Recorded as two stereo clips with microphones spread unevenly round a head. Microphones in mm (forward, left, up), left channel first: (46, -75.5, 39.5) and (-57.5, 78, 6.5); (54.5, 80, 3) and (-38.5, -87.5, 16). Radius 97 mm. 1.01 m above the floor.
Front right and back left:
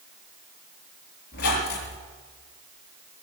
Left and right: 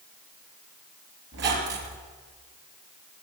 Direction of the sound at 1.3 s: 90° right.